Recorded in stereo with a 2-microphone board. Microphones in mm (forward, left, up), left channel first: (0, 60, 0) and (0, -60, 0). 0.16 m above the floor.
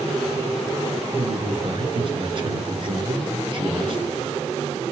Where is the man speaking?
45° right (ahead or behind), 2 m.